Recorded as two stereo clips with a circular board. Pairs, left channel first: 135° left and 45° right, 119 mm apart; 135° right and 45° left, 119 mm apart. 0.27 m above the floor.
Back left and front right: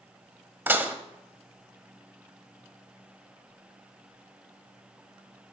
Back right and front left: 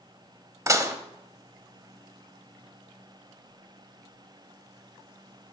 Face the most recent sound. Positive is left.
turn(degrees=10)